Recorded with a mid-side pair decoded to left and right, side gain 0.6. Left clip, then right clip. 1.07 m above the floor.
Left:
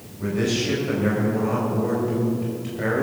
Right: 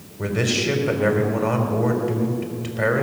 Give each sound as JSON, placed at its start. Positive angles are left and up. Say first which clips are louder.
{"t": 0.2, "sound": "a man speaking", "louder": "right 2 dB", "azimuth_deg": -45, "distance_m": 4.0}